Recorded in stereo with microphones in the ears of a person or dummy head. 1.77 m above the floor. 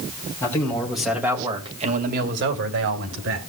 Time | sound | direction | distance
0.4 | a man speaking | 15° left (ahead or behind) | 2.5 m